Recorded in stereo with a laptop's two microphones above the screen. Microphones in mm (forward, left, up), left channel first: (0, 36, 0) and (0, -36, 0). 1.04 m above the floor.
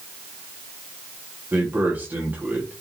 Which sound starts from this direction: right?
A man speaking, at 1.5 s.